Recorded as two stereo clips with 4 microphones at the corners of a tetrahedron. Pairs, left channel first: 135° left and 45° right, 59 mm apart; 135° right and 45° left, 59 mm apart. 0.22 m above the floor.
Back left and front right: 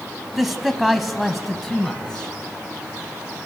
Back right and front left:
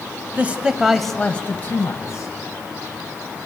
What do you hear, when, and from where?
0.3 s a man speaking: 40° left, 1.1 m; by 2.3 s 140° right, 1.5 m